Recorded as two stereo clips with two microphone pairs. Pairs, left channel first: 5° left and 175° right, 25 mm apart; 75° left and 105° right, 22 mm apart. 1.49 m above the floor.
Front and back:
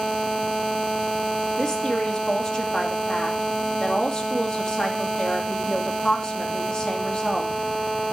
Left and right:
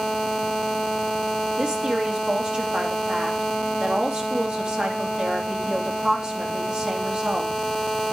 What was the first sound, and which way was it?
A woman speaking, 60° right.